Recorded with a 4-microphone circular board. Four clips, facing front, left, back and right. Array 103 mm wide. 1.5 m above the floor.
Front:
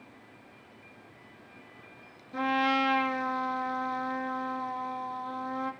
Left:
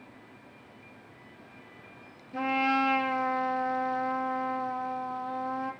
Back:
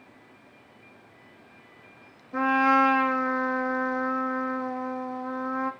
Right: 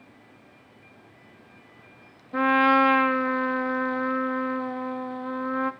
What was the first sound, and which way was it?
A trumpet, 115° right.